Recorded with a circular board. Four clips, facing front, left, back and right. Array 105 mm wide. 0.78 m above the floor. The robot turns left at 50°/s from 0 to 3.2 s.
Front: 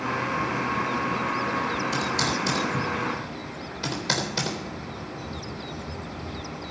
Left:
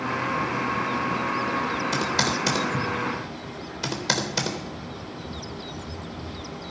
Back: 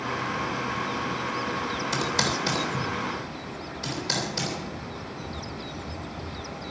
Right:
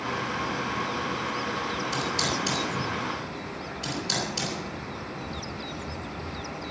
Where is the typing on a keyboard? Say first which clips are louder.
Left 3 dB, front 1 dB; 130° left, 3.5 m; by 4.6 s 70° left, 3.5 m.